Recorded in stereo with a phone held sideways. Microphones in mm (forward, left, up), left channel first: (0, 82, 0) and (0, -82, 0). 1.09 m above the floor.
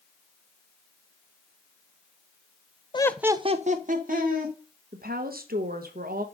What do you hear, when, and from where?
2.9 s laughter: 30° left (ahead or behind), 0.5 m; by 4.5 s 65° right (ahead or behind), 1.9 m
4.9 s a woman speaking: 65° right (ahead or behind), 0.9 m